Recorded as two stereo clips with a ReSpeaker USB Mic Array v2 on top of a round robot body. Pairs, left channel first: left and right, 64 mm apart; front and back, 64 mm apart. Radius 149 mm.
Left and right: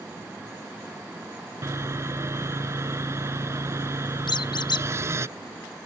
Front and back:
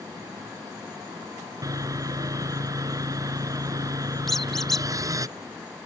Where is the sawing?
145° right.